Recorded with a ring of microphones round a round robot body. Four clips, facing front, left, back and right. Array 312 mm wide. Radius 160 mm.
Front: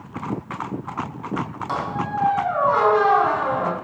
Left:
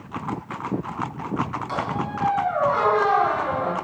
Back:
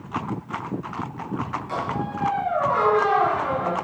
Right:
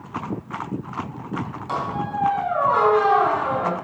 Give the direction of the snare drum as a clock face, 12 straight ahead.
No snare drum in this recording.